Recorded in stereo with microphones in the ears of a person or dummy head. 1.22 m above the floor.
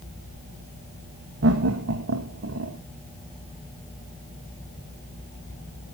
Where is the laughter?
75° right (ahead or behind), 1.4 m.